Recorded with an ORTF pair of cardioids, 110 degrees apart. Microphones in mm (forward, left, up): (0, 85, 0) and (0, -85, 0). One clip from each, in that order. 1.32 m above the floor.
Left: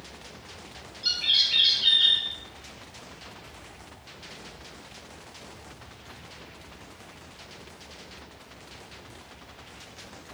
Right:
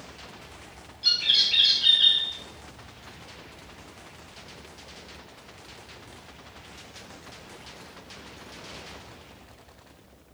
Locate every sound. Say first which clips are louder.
1.0 s a bird: right 2 dB; 5° right, 1.0 m